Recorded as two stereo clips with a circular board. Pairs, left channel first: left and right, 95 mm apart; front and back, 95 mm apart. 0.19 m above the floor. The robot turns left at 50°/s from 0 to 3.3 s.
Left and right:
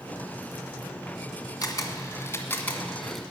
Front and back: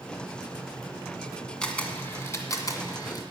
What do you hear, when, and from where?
1.6 s a camera shutter: 80° left, 1.7 m; by 3.2 s straight ahead, 1.7 m